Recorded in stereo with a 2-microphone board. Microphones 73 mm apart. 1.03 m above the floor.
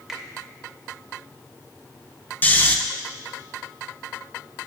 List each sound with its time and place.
0.1 s a finger snap: 5° right (ahead or behind), 1.0 m
2.4 s snoring: 25° left (ahead or behind), 0.5 m